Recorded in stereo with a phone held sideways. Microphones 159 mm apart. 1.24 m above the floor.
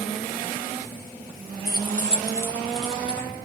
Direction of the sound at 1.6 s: 75° left (ahead or behind).